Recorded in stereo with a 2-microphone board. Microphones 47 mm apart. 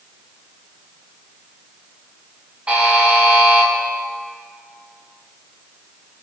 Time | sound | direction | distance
2.7 | a buzzer | 25° right (ahead or behind) | 4 m